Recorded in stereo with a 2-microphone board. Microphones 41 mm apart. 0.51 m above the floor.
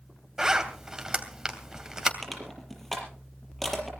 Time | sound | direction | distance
0.4 | a zipper | 15° right (ahead or behind) | 2.5 m
2.2 | crushing | 5° left (ahead or behind) | 5.5 m